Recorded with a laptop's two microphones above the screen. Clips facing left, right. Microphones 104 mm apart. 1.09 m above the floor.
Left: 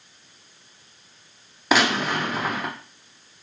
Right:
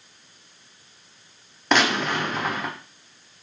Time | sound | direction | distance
1.7 | a gunshot | 5° left (ahead or behind) | 0.6 m